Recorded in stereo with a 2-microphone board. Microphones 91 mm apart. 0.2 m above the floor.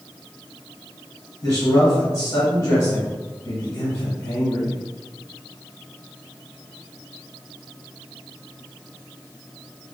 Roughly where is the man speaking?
Left.